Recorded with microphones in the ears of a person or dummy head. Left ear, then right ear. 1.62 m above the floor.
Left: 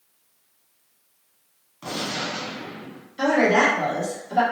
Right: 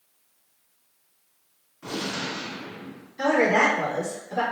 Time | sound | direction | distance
1.8 | a gunshot | 75° left (ahead or behind) | 1.3 m
3.2 | a woman speaking | 60° left (ahead or behind) | 1.6 m